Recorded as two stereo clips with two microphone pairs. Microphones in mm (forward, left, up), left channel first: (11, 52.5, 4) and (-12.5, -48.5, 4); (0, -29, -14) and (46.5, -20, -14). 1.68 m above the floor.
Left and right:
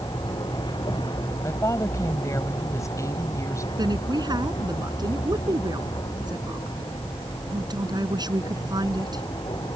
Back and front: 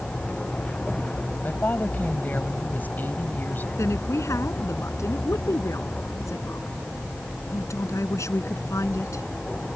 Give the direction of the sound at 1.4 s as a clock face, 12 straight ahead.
7 o'clock.